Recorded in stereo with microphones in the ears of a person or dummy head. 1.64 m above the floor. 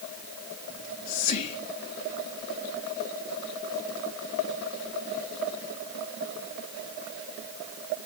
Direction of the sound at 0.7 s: 45° left (ahead or behind).